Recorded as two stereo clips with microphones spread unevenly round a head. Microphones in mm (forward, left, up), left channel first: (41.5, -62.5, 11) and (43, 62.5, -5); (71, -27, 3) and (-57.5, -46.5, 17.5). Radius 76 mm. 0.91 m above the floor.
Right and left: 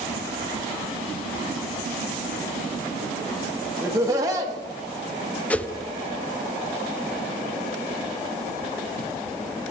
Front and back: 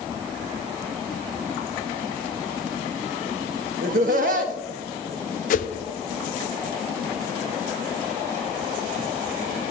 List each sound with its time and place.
3.8 s laughter: 155° left, 1.5 m
5.5 s a whoosh: 10° right, 0.6 m